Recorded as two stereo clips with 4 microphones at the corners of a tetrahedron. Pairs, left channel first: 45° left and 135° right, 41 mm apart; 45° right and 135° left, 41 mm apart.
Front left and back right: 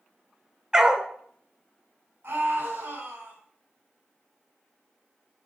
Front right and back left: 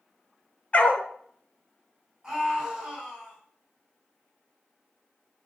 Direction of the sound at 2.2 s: 145° right.